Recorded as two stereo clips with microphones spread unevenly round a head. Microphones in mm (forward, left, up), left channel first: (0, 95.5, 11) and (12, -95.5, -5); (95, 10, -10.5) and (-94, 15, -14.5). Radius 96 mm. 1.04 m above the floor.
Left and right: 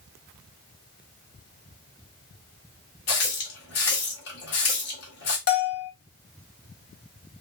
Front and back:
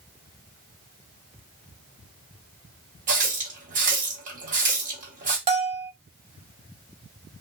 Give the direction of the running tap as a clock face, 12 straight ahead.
8 o'clock.